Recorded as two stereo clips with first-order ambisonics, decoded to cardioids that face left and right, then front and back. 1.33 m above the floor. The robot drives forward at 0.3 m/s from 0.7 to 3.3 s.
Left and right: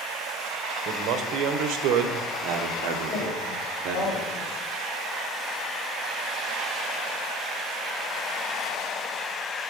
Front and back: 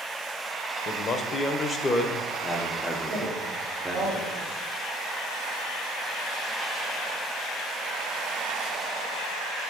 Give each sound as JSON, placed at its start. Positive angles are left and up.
{"t": 0.8, "sound": "a man speaking", "azimuth_deg": -50, "distance_m": 1.1}
{"t": 3.1, "sound": "a woman speaking", "azimuth_deg": 115, "distance_m": 2.5}